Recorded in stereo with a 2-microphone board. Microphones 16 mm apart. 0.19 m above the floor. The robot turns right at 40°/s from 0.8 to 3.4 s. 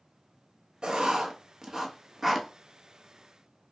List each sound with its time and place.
0.8 s writing: 70° right (ahead or behind), 0.6 m; by 2.5 s 5° right (ahead or behind), 0.6 m